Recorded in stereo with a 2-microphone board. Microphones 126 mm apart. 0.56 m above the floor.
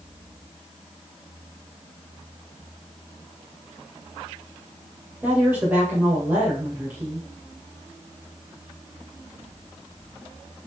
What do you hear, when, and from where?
5.2 s a woman speaking: 15° right (ahead or behind), 2.5 m